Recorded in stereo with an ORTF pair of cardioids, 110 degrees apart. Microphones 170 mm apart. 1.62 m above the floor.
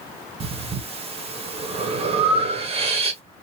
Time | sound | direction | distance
0.4 | breathing | 35° right | 1.2 m